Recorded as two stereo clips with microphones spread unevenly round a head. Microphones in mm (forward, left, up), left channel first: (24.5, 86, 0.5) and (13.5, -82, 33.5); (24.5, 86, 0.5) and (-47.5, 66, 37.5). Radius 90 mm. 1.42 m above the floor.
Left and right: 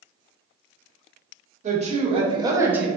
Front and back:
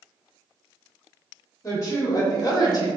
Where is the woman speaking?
45° right, 1.2 m; by 2.9 s 5° right, 0.7 m.